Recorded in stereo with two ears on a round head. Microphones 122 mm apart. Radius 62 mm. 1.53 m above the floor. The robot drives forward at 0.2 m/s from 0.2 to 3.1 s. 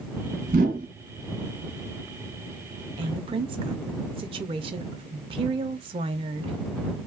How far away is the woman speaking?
About 0.5 m.